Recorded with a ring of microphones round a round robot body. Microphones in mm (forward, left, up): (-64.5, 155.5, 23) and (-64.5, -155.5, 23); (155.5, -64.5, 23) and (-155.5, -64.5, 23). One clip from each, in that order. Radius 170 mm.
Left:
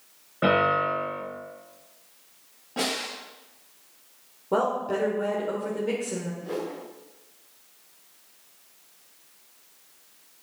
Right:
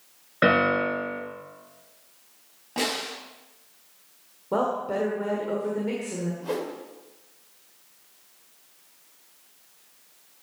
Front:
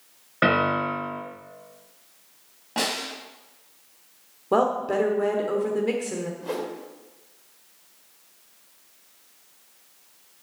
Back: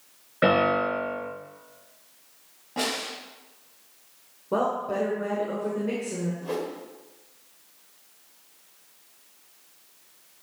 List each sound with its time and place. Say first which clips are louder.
0.4 s a piano: right 1 dB, even; 55° right, 6 m
2.8 s a snare drum: right 1 dB, front 2 dB; 30° right, 4.5 m
4.5 s a woman speaking: left 1 dB, front 4 dB; 5° left, 1.4 m
6.4 s a whoosh: right 3 dB, back 1 dB; 70° right, 1.7 m